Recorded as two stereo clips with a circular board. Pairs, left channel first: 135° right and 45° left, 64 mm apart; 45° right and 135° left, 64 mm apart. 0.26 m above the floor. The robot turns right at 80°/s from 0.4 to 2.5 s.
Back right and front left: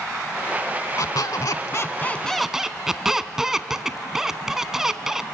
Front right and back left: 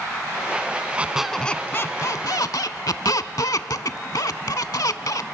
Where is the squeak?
160° right, 0.6 m; by 5.2 s 35° right, 0.6 m.